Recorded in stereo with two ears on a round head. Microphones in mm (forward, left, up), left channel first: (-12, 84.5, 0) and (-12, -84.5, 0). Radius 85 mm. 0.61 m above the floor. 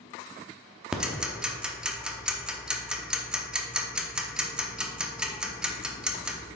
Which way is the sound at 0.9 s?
5° right (ahead or behind).